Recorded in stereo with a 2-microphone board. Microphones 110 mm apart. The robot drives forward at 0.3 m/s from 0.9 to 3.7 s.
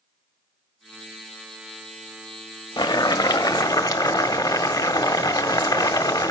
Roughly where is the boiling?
Left.